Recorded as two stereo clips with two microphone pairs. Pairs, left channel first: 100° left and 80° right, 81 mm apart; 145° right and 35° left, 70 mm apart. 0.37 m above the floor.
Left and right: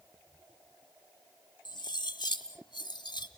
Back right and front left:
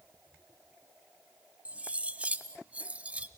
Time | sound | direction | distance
1.6 | cutlery clinking | 105° left | 1.3 m